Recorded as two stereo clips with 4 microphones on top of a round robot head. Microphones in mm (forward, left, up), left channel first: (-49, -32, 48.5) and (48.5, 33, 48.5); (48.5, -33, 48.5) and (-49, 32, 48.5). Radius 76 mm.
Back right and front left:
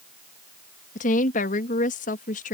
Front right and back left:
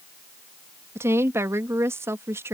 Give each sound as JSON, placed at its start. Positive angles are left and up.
{"t": 0.9, "sound": "a woman speaking", "azimuth_deg": -145}